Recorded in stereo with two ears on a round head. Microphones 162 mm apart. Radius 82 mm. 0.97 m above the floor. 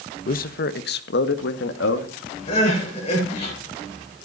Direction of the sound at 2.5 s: 30° left (ahead or behind).